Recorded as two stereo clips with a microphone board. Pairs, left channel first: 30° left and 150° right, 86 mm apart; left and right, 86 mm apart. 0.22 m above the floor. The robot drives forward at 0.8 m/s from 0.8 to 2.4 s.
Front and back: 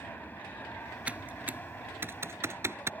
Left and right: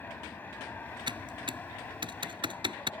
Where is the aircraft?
60° left; by 3.0 s 65° left.